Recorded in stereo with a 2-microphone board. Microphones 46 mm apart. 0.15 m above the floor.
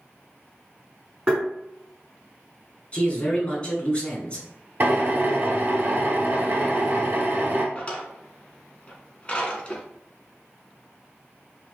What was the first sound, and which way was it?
Tapping, 15° right (ahead or behind).